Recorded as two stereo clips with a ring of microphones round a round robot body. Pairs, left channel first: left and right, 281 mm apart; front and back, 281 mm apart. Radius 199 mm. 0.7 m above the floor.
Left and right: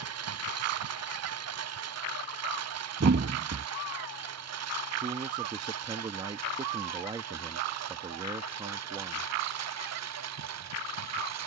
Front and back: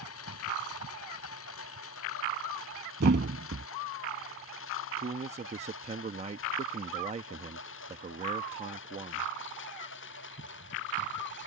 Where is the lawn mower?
60° right; by 11.5 s 65° right.